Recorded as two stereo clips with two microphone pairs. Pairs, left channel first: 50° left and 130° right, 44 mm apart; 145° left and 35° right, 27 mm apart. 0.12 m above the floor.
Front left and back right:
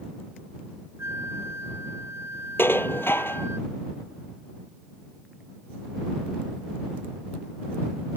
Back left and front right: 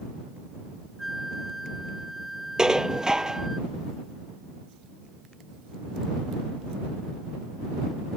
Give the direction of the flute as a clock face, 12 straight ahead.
4 o'clock.